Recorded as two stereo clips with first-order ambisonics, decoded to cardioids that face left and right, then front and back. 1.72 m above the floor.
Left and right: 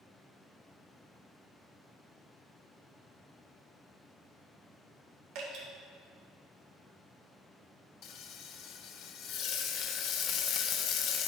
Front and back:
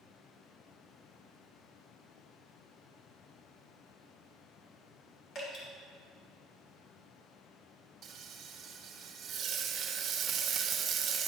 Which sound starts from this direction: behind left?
Frying, at 8.0 s.